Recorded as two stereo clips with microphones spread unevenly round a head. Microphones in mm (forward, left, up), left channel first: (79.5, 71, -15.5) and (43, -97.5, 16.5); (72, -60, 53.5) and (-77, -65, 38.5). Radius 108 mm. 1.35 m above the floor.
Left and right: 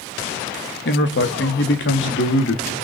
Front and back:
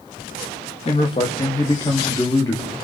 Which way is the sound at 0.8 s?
65° left.